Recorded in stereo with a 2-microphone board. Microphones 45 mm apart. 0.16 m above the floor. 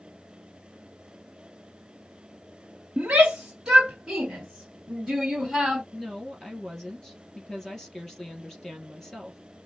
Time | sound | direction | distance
3.0 | a shout | 25° right (ahead or behind) | 1.2 m
5.9 | a woman speaking | 10° left (ahead or behind) | 3.5 m